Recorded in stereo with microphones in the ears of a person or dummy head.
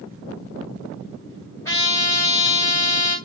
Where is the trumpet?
20° left (ahead or behind), 2 m.